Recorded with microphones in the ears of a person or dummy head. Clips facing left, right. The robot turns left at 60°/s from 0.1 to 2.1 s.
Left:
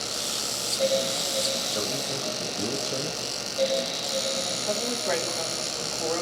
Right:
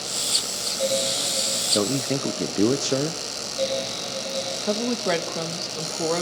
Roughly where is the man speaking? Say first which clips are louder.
Right 8 dB; right.